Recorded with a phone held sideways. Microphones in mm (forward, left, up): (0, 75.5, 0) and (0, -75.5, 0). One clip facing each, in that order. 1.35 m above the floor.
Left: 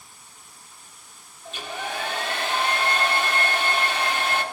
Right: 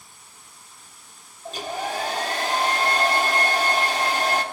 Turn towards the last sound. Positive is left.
turn(degrees=-40)  # may be behind; listen again after turning